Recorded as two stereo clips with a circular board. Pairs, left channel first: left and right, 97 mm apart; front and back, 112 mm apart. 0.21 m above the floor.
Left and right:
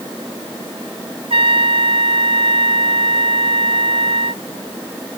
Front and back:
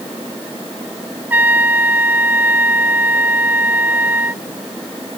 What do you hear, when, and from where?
1.3 s a trumpet: 105° right